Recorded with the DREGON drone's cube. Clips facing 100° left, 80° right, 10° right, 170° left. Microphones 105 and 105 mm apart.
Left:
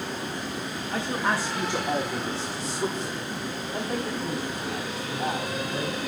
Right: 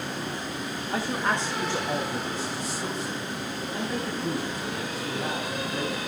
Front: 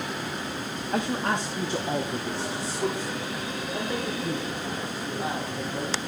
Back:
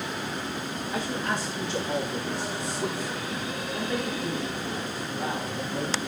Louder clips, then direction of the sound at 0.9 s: Even, front 4 dB; straight ahead.